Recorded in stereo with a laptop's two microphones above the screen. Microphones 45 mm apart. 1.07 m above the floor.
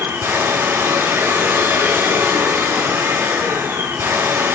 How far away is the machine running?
About 5 m.